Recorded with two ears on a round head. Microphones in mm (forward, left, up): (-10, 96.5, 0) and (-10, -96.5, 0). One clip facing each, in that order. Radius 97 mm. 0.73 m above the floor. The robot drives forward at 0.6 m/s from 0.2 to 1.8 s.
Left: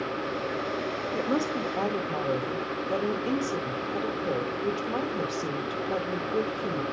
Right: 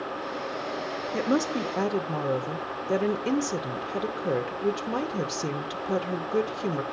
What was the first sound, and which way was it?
A woman speaking, 30° right (ahead or behind).